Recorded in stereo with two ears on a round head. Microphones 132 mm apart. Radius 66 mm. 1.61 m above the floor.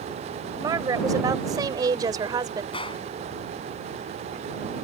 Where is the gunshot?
35° left (ahead or behind).